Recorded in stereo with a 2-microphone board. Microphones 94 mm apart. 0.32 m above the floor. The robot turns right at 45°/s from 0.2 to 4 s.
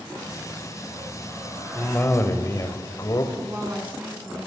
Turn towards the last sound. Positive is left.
turn(degrees=-10)  # may be behind; listen again after turning